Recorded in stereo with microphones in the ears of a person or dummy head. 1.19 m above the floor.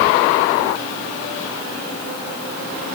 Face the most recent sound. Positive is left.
No sound to turn to.